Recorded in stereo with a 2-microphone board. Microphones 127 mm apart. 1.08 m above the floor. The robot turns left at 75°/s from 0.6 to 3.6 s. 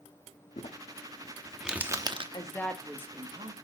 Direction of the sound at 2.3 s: 35° left.